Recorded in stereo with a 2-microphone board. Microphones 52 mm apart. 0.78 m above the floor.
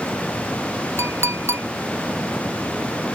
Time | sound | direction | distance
1.0 | a clink | 60° right (ahead or behind) | ?